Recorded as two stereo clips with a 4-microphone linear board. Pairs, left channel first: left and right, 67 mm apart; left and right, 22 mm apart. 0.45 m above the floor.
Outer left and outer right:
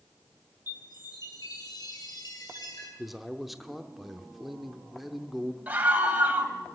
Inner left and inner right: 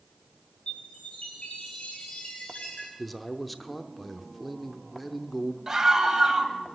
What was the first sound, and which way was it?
A chime, 70° left (ahead or behind).